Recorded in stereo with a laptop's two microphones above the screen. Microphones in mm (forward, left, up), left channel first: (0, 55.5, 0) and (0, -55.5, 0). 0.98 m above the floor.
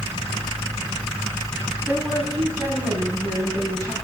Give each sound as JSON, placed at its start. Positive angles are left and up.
{"t": 1.9, "sound": "a woman speaking", "side_deg": -15, "distance_m": 6.0}